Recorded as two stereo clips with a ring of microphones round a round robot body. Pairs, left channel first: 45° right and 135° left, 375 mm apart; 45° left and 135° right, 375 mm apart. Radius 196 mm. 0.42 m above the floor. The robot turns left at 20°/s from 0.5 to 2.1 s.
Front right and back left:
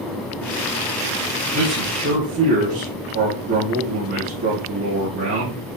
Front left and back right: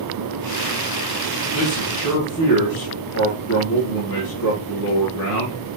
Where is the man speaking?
95° left, 3 m; by 5.6 s 85° left, 3 m.